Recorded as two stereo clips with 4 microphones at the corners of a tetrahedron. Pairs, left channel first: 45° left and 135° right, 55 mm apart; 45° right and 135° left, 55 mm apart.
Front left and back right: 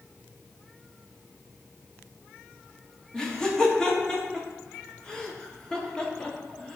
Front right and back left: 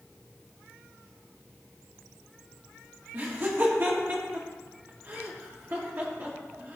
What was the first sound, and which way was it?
Laughter, 115° left.